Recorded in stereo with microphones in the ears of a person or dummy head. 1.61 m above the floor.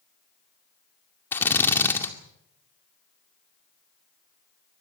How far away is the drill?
About 2 m.